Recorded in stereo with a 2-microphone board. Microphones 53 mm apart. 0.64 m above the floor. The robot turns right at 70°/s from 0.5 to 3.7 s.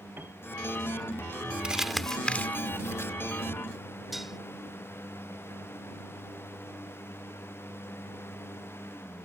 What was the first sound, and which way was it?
A piano, 40° right (ahead or behind).